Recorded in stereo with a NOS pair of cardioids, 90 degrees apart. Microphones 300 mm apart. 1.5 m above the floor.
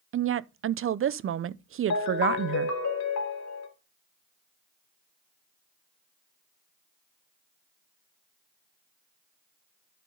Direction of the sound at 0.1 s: 45° right.